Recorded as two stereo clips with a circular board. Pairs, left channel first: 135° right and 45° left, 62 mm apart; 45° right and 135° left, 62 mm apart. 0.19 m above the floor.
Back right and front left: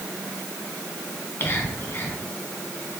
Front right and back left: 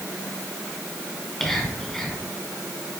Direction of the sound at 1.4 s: 125° right.